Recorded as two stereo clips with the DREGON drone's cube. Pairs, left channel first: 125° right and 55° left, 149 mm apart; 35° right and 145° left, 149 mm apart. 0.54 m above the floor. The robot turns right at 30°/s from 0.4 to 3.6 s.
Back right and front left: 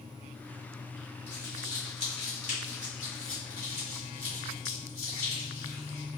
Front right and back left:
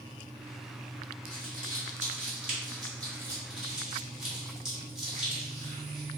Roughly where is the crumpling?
Behind.